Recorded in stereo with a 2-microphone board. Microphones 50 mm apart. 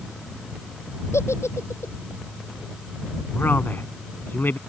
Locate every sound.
1.1 s a giggle: 70° left (ahead or behind)
3.4 s a man speaking: 45° left (ahead or behind)